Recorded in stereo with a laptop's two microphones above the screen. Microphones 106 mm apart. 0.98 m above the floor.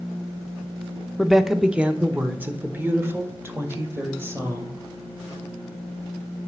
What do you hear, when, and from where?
1.2 s a woman speaking: centre (ahead or behind), 0.5 m; by 4.8 s 25° right (ahead or behind), 2 m